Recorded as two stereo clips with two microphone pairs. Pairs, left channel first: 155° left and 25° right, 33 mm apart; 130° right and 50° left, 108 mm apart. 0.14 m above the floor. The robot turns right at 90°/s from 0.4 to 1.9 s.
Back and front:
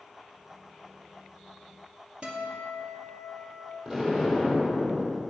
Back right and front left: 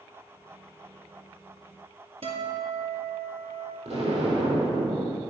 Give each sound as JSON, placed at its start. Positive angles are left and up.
{"t": 2.2, "sound": "a guitar", "azimuth_deg": 30, "distance_m": 2.5}
{"t": 3.9, "sound": "an explosion", "azimuth_deg": 45, "distance_m": 3.0}